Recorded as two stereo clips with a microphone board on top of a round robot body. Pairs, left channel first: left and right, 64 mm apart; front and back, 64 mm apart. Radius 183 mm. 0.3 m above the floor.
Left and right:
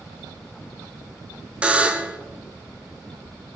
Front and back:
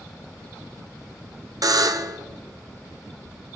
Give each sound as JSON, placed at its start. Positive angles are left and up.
{"t": 1.6, "sound": "a buzzer", "azimuth_deg": -160, "distance_m": 1.0}